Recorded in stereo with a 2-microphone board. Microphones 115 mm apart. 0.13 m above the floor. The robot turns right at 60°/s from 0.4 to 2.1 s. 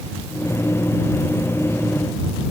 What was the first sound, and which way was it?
Only background noise.